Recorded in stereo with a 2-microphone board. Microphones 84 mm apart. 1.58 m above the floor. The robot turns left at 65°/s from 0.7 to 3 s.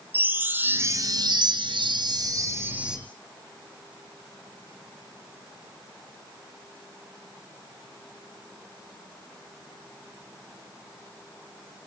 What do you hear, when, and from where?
0.1 s a chime: 25° right, 3.5 m; by 3.0 s 175° right, 3.5 m